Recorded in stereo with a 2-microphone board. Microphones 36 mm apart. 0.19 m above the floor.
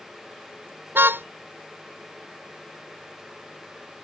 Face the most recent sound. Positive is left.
turn(degrees=-80)